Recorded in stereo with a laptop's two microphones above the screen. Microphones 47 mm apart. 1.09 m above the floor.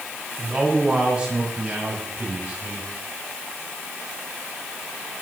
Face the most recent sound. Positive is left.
turn(degrees=-25)  # may be behind; listen again after turning